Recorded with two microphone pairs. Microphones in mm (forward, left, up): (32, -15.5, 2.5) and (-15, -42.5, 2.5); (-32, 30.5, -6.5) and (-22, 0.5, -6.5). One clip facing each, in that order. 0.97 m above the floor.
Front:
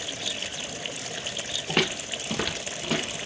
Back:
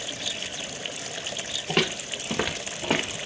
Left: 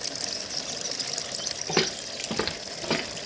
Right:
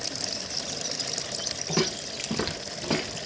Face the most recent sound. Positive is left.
turn(degrees=-170)